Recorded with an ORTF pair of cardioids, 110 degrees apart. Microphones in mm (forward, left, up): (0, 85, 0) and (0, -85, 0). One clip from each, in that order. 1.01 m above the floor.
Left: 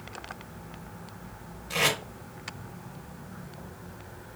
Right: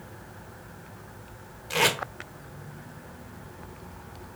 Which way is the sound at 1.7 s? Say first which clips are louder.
Right 2 dB; 25° right.